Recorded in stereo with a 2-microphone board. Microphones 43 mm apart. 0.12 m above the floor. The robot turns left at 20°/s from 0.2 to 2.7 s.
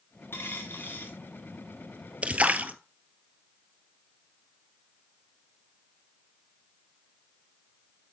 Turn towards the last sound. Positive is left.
turn(degrees=-40)  # may be behind; listen again after turning